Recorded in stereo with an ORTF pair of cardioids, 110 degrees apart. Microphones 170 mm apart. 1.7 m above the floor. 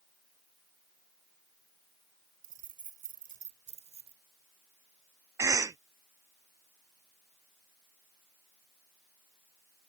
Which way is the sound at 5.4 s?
20° right.